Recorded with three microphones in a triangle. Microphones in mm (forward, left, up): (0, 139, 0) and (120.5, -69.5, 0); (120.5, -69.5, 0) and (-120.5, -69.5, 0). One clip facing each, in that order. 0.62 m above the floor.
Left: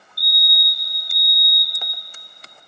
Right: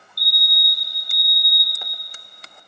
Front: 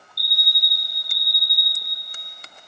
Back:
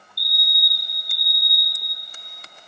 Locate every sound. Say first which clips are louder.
0.2 s a fire alarm: left 2 dB, back 1 dB; 140° left, 1.7 m